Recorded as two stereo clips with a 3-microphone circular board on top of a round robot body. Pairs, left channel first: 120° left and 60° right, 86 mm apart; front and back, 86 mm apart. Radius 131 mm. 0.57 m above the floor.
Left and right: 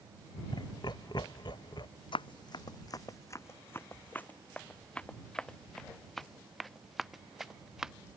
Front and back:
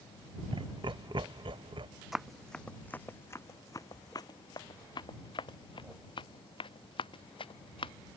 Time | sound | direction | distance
0.5 | laughter | 155° left | ?
2.1 | running footsteps | 95° left | ?